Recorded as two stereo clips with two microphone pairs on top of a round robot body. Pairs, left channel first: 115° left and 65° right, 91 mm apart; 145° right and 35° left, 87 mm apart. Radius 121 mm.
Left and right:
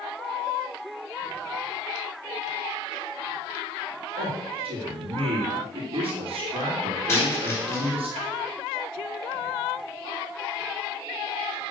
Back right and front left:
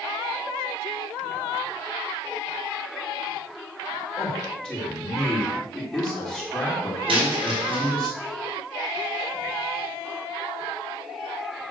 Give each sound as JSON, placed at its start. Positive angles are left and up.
{"t": 4.2, "sound": "a man speaking", "azimuth_deg": -65, "distance_m": 2.5}
{"t": 7.1, "sound": "a dropped coin", "azimuth_deg": 55, "distance_m": 3.5}